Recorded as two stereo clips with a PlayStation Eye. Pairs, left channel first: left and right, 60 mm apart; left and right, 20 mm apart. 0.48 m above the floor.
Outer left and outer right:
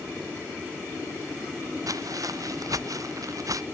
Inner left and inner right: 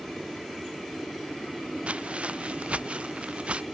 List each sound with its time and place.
1.9 s footsteps: 80° right; by 3.6 s 70° right (ahead or behind)